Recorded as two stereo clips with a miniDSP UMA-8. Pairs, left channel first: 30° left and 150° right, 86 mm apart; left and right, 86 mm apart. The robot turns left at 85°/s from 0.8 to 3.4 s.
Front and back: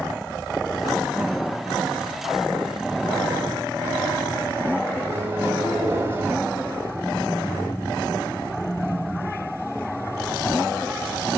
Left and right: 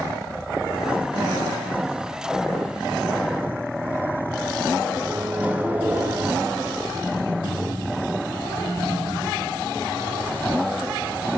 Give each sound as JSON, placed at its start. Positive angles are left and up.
{"t": 5.0, "sound": "a microwave", "azimuth_deg": -140, "distance_m": 0.8}